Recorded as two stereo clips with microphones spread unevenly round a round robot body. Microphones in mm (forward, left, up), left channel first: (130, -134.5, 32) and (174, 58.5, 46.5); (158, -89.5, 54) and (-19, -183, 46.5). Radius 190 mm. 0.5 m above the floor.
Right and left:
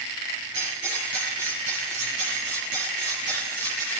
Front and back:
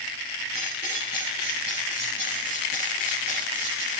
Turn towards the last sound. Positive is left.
turn(degrees=135)